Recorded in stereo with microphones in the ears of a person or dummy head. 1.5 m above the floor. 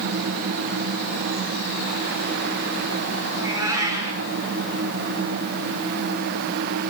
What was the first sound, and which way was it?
A cat meowing, 20° right (ahead or behind).